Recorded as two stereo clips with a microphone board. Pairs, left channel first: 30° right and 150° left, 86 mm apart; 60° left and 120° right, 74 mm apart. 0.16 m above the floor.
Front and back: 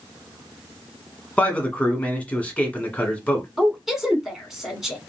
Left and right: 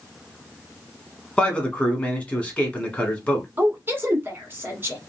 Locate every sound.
1.4 s a man speaking: 15° left, 1.2 m
3.6 s a woman speaking: 125° right, 1.2 m